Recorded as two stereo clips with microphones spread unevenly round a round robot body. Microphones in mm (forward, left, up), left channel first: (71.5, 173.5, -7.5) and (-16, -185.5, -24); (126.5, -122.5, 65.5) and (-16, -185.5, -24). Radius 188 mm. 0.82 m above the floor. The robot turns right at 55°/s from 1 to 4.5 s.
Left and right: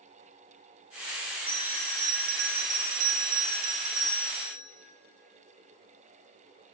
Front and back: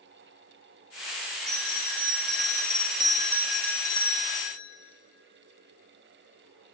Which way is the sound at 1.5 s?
170° left.